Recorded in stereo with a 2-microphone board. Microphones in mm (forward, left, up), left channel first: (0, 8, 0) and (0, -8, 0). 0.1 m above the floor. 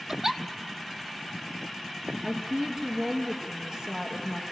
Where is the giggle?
30° right (ahead or behind), 0.7 m.